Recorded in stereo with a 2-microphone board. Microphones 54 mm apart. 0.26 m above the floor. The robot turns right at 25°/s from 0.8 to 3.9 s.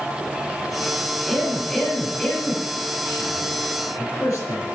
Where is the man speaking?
Centre (ahead or behind), 5.5 m; by 4.7 s 65° left (ahead or behind), 5.5 m.